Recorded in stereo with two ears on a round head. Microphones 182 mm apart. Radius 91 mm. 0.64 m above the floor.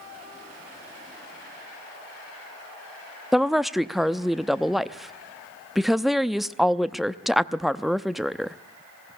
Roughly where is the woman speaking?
Centre.